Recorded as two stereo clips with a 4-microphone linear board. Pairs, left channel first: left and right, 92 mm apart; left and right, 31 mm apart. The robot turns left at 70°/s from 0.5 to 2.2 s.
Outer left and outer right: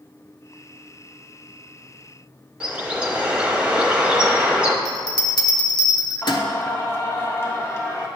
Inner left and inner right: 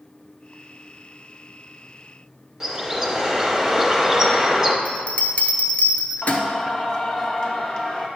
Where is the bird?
15° right (ahead or behind), 0.8 m.